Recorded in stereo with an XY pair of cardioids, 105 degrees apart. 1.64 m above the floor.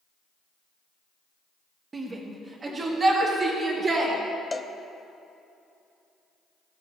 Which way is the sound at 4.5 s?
15° left.